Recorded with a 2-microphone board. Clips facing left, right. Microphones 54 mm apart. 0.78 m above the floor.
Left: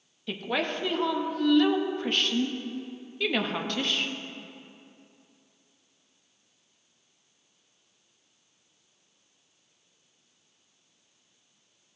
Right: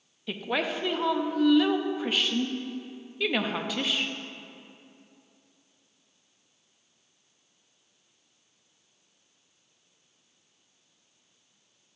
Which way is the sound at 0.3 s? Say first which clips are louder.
Even; 5° right (ahead or behind).